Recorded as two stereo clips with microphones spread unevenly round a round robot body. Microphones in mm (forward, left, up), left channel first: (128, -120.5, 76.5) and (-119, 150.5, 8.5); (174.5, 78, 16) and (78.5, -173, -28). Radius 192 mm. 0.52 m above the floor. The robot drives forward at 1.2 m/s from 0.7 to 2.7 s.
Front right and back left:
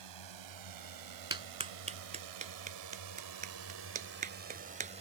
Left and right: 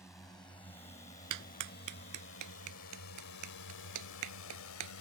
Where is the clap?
150° right; by 4.9 s 155° right.